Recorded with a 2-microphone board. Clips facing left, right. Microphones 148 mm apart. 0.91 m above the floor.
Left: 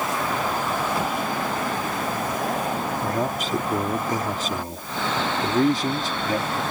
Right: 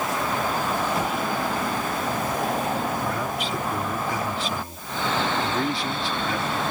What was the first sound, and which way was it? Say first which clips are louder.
A man speaking: left 2 dB; 40° left (ahead or behind).